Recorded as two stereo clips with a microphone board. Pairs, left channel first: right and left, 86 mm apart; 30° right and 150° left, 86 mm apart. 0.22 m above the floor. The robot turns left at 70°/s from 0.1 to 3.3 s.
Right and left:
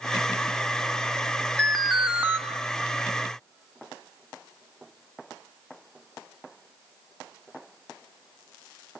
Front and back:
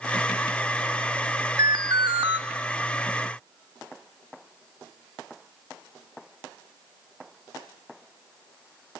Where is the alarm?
165° right, 1.3 m; by 2.4 s 140° left, 1.3 m.